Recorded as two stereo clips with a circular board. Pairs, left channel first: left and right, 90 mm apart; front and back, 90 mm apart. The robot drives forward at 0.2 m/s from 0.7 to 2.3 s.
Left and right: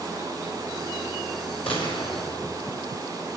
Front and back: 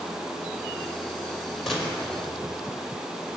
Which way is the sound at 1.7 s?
85° left.